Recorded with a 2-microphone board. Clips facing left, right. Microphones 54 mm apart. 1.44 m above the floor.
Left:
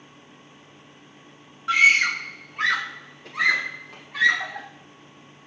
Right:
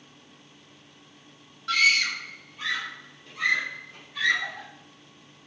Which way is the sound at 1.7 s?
20° left (ahead or behind).